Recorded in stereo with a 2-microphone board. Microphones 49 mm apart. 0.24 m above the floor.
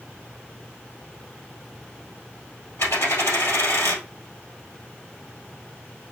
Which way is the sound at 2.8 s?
65° left (ahead or behind).